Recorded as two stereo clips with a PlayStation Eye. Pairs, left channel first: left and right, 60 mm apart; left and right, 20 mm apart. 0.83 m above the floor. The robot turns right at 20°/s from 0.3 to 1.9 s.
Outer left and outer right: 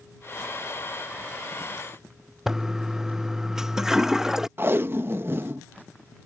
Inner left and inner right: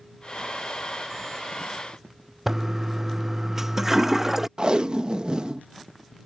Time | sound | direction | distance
2.5 | a toilet flushing | 10° right (ahead or behind) | ?
4.6 | tape being pulled | 40° right (ahead or behind) | ?